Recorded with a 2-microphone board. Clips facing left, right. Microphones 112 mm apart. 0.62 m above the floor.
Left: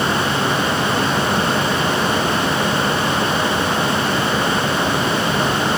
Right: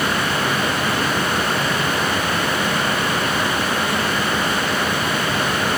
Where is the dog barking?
I don't hear a dog barking.